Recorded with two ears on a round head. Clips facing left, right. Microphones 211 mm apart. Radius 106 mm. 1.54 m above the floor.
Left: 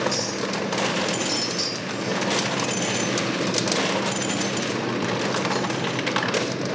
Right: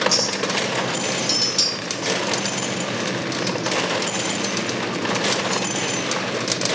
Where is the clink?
45° right (ahead or behind), 1.9 m.